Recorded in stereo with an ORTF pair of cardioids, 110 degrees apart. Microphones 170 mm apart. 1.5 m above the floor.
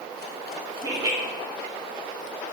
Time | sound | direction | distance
0.8 | laughter | 25° right | 0.9 m